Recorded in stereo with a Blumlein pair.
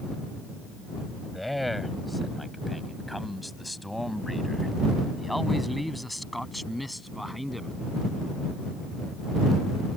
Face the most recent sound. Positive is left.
turn(degrees=0)